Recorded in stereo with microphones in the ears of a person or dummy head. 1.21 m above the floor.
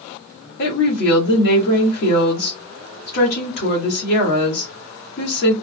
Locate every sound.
0.6 s a woman speaking: 60° left (ahead or behind), 1.6 m